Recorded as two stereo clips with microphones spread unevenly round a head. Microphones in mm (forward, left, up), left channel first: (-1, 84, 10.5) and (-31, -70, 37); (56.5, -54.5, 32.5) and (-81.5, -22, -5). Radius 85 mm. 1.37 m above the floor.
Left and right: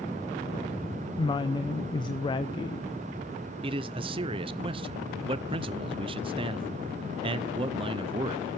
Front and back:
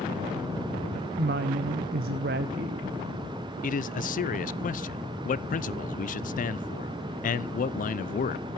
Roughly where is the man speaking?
Ahead right.